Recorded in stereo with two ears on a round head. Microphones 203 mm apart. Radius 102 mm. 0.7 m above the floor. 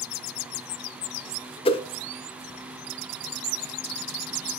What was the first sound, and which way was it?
A whoosh, 25° left (ahead or behind).